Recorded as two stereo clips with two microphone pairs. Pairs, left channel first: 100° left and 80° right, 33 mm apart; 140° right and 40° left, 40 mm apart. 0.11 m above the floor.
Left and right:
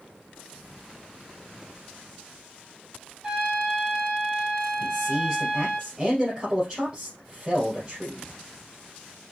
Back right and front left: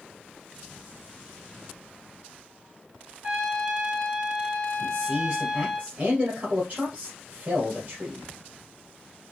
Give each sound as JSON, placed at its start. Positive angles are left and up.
{"t": 3.2, "sound": "a trumpet", "azimuth_deg": -25, "distance_m": 3.0}
{"t": 4.8, "sound": "a man speaking", "azimuth_deg": -10, "distance_m": 2.5}